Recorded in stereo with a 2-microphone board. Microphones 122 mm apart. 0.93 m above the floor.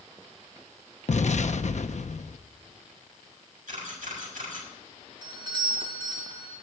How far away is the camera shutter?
About 6.5 m.